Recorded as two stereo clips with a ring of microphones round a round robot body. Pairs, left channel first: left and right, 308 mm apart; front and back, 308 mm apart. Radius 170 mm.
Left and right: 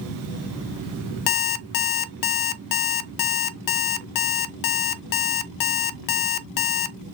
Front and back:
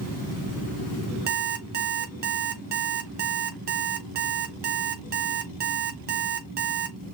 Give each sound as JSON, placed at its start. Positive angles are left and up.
{"t": 1.3, "sound": "an alarm clock", "azimuth_deg": 115, "distance_m": 0.5}